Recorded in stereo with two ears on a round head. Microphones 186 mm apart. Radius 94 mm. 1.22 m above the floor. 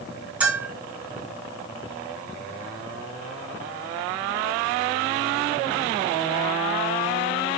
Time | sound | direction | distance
0.4 | a bell | 5° right (ahead or behind) | 3 m